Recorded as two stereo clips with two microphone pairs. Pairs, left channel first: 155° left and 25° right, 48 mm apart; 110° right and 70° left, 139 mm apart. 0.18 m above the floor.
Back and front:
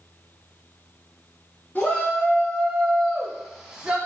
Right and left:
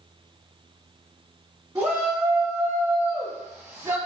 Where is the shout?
135° left, 1.2 m; by 4.0 s 15° left, 1.1 m.